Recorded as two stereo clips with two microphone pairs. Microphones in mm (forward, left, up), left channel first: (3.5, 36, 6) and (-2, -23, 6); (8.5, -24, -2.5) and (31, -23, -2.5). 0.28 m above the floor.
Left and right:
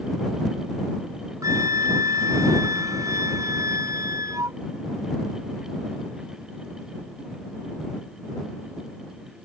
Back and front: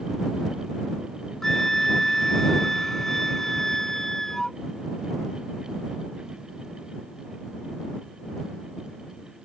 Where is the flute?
105° right.